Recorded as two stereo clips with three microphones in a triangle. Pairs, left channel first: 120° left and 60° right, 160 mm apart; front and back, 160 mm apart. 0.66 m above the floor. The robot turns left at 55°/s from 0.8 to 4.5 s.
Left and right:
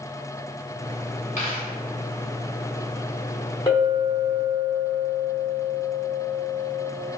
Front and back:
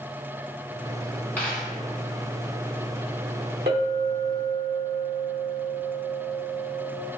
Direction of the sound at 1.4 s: 80° left.